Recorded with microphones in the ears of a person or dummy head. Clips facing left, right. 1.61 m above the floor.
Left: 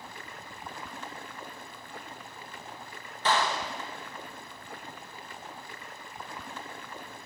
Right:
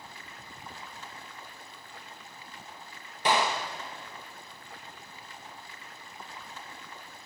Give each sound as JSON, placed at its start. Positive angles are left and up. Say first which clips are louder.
{"t": 0.0, "sound": "running water", "louder": "left 4 dB", "side_deg": 50, "distance_m": 0.8}
{"t": 3.2, "sound": "a gunshot", "louder": "right 1 dB", "side_deg": -10, "distance_m": 1.1}